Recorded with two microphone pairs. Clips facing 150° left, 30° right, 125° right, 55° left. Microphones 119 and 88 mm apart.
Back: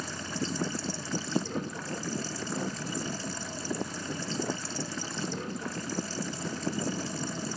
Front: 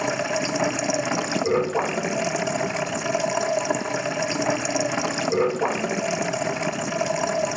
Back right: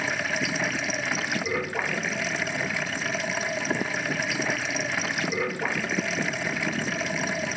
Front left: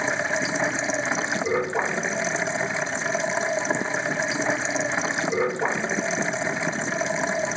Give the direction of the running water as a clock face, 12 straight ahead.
12 o'clock.